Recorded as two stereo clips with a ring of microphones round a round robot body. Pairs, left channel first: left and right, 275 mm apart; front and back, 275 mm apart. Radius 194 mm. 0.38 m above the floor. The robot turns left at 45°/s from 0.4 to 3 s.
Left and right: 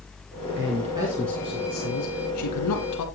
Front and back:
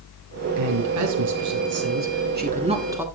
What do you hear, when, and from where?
0.6 s a man speaking: 150° right, 3.5 m; by 3.0 s 100° left, 3.5 m